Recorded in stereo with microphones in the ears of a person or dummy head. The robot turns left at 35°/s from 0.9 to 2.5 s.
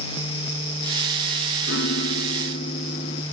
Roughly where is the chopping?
No chopping in this recording.